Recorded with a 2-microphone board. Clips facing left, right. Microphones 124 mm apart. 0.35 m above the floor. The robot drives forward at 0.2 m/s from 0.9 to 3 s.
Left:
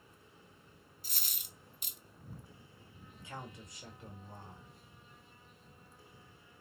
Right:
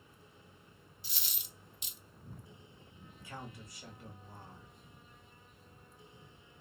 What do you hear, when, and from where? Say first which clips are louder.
1.0 s a dropped coin: even; 45° left (ahead or behind), 0.5 m; by 2.0 s 50° left (ahead or behind), 0.5 m
3.1 s a man speaking: left 1 dB; 20° left (ahead or behind), 1.4 m